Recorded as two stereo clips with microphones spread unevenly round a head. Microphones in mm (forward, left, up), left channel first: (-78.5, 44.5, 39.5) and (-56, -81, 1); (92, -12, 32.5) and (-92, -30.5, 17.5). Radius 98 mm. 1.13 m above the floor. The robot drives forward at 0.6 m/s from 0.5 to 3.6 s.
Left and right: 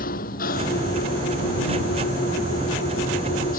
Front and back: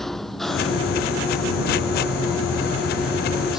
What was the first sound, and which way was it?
An engine running, 95° left.